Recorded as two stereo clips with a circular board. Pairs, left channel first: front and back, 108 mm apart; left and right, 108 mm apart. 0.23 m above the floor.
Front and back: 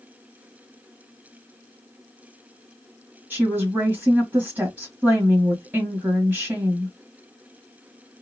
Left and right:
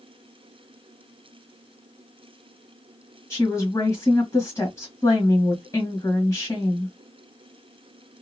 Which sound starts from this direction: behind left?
A woman speaking, at 3.3 s.